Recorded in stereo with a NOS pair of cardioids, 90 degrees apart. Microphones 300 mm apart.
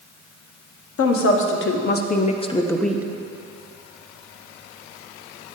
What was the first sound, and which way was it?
A woman speaking, 50° left.